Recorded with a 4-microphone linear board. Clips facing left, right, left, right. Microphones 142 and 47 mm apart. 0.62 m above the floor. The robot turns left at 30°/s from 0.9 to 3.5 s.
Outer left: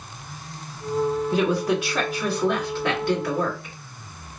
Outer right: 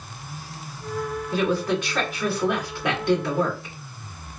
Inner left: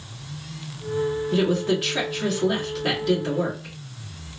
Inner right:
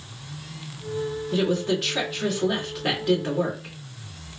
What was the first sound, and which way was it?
A woman speaking, 25° left.